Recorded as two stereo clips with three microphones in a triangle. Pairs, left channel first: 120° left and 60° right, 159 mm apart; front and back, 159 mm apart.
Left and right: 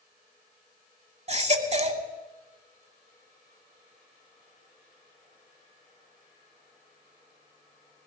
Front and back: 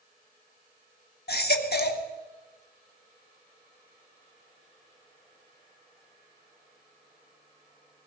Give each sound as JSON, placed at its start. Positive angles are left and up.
{"t": 1.3, "sound": "a baby crying", "azimuth_deg": -10, "distance_m": 1.0}